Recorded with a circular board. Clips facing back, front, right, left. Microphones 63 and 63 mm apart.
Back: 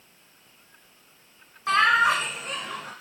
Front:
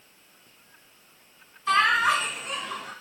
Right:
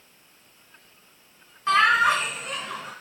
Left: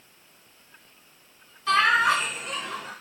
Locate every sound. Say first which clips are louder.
1.7 s laughter: back 1 dB, right 1 dB; 150° right, 1.8 m